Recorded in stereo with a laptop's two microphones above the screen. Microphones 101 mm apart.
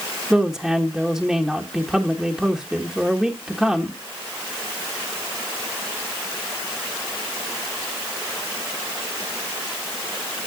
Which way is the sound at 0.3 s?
5° right (ahead or behind).